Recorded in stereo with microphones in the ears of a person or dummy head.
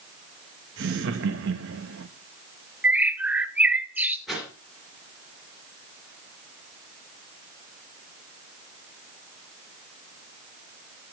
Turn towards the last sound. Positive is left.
turn(degrees=0)  # may be behind; listen again after turning